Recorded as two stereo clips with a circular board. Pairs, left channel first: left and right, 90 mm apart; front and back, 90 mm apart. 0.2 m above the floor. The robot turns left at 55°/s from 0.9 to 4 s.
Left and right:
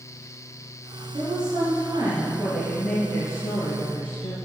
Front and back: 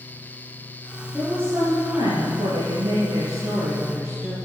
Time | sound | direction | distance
1.1 | a woman speaking | 95° right | 4 m